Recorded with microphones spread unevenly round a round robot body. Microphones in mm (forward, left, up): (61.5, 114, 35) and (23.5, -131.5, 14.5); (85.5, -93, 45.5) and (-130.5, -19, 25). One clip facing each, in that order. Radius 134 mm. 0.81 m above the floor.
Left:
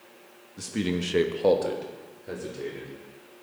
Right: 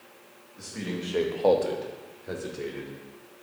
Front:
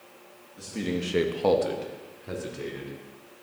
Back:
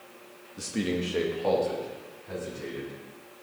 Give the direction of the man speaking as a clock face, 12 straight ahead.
8 o'clock.